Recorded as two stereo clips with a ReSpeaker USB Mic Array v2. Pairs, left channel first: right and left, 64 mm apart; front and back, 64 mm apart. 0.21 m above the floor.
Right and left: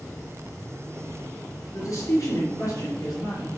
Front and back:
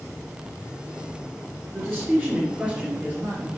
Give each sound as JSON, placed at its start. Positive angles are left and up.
{"t": 1.7, "sound": "a man speaking", "azimuth_deg": -90, "distance_m": 2.5}